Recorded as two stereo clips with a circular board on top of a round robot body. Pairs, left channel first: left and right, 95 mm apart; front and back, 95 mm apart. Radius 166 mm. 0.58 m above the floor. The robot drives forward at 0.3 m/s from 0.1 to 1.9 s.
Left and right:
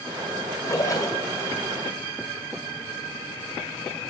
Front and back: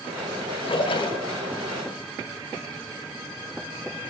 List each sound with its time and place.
0.6 s a splash: 30° left, 2 m; by 1.3 s 35° left, 1.9 m